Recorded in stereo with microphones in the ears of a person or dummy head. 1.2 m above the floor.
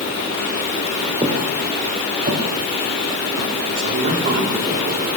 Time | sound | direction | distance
1.2 | footsteps | 20° right (ahead or behind) | 3 m
3.8 | a man speaking | 40° right (ahead or behind) | 3 m